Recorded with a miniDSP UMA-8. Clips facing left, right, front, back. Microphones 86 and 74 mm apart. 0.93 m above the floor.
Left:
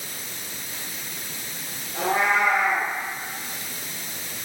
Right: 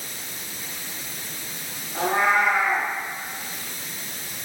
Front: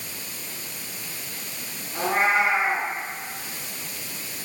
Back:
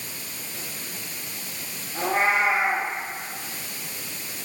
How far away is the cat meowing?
About 5 m.